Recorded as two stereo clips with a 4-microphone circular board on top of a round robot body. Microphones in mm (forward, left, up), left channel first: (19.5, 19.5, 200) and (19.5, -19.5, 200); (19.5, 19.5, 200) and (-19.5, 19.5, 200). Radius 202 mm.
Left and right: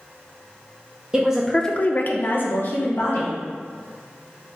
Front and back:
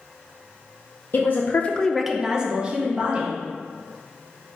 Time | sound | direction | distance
1.1 | a woman speaking | 25° right | 0.7 m